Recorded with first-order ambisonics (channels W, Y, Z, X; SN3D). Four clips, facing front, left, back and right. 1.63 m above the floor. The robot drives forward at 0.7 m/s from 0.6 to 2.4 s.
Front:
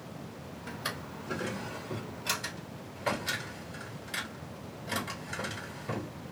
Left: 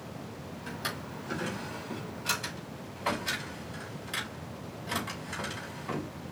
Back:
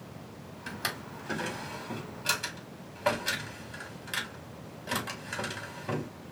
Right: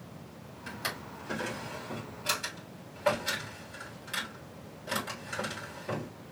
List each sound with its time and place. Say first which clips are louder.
0.7 s a drawer: even, back 3 dB; 175° right, 2.5 m